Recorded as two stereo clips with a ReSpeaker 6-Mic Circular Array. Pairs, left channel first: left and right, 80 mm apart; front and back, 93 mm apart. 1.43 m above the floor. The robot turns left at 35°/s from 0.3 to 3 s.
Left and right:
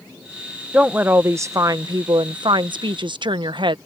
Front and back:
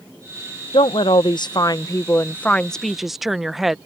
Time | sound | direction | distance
0.7 | a woman speaking | 15° right | ?